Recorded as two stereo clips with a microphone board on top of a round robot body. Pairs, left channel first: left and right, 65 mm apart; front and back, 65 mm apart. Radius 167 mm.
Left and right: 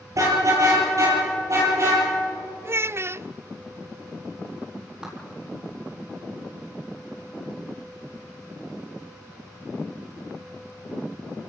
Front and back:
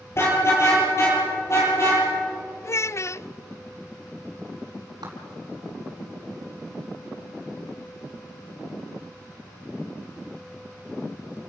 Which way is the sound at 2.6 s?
40° right.